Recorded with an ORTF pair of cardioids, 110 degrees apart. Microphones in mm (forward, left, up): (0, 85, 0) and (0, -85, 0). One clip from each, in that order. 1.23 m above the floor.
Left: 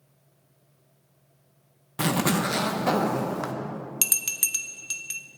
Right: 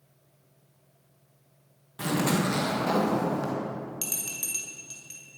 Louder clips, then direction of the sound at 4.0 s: Left 10 dB; 60° left.